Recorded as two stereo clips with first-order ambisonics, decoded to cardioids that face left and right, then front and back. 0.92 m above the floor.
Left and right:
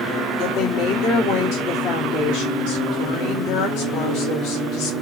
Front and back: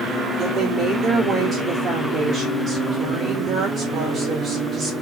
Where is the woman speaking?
110° left, 1.8 m.